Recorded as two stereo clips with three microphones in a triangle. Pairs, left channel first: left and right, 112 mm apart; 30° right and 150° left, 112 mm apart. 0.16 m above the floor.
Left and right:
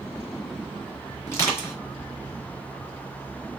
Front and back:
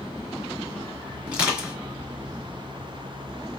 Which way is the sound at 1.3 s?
85° left.